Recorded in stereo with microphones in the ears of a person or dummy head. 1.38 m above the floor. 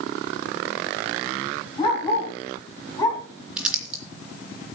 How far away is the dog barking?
About 5 m.